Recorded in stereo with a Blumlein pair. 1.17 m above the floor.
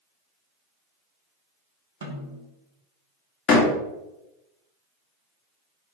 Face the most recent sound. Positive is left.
turn(degrees=30)